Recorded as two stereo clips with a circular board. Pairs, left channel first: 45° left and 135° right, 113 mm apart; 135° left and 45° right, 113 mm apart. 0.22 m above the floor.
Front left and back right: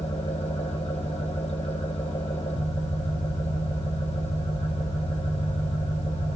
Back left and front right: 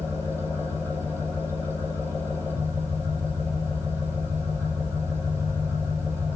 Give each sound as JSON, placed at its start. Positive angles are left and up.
{"t": 0.0, "sound": "an engine running", "azimuth_deg": 25, "distance_m": 8.0}